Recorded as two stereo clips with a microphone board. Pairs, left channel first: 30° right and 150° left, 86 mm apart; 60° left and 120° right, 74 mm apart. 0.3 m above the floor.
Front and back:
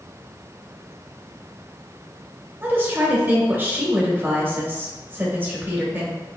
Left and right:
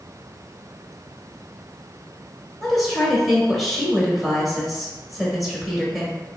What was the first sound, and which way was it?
A woman speaking, 145° left.